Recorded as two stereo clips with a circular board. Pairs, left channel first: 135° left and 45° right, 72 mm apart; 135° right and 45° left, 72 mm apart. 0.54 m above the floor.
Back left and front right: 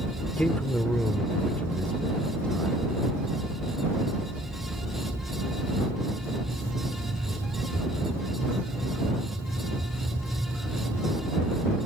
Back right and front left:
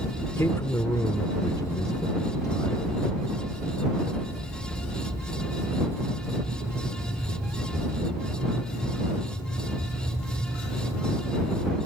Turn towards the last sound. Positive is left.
turn(degrees=-150)